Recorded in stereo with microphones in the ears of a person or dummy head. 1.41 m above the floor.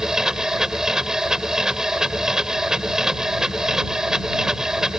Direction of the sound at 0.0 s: 5° right (ahead or behind).